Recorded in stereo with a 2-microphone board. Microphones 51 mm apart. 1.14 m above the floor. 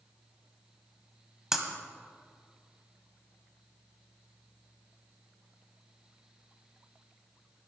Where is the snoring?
No snoring in this recording.